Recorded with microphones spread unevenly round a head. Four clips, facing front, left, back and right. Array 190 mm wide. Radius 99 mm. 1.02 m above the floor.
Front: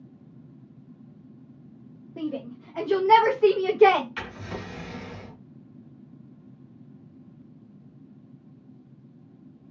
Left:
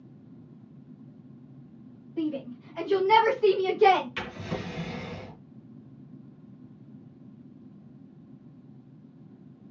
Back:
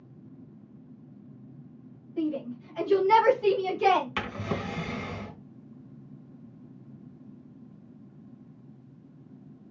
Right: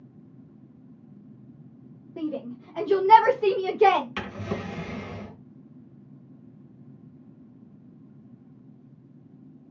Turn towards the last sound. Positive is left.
turn(degrees=-155)